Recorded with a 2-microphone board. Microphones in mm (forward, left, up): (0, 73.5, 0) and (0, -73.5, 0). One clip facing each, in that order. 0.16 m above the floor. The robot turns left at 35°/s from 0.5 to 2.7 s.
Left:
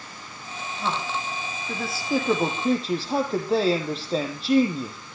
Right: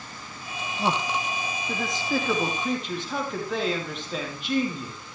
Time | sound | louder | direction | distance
0.8 | a man speaking | right 2 dB | 145° right | 5 m